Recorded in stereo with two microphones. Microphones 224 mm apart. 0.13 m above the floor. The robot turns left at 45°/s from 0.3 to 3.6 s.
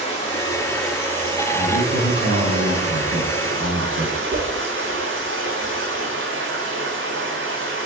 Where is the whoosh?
55° right (ahead or behind), 0.9 m.